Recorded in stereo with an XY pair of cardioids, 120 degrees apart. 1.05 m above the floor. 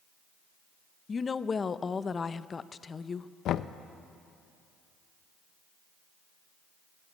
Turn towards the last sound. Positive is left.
turn(degrees=65)